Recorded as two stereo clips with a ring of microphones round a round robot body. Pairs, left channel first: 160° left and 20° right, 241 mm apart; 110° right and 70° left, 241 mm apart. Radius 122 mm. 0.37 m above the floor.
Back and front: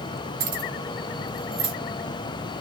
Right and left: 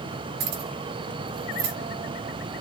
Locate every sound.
0.4 s keys jangling: 30° left, 5 m; by 1.8 s 40° left, 4.5 m